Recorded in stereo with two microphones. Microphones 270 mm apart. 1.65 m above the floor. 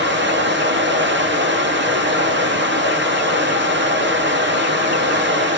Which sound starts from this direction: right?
Running water, at 0.0 s.